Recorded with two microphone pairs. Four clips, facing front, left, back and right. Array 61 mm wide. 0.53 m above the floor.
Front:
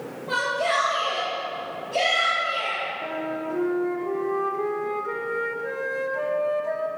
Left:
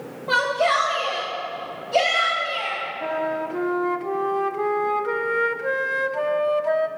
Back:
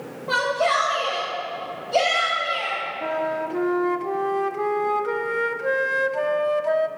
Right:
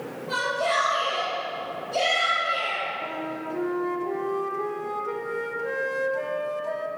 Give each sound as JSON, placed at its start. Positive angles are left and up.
{"t": 0.3, "sound": "a shout", "azimuth_deg": 110, "distance_m": 3.0}
{"t": 3.0, "sound": "a flute", "azimuth_deg": 120, "distance_m": 0.5}